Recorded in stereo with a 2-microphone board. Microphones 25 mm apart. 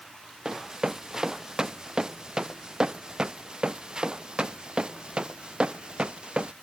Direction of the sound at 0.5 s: 25° right (ahead or behind).